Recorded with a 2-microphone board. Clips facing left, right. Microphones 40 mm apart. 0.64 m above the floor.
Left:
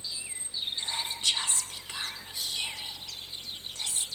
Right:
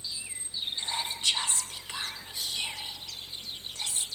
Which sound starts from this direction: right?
Whispering, at 0.8 s.